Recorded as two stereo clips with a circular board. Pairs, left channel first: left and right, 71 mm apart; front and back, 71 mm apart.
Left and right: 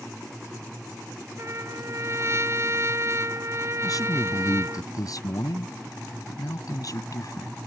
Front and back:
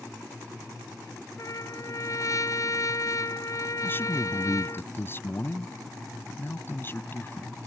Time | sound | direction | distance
1.4 | a trumpet | 40° right | ?
3.8 | a man speaking | 60° left | ?